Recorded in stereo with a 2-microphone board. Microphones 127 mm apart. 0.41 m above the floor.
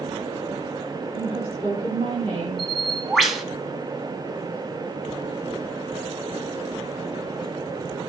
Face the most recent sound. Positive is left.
turn(degrees=0)  # may be behind; listen again after turning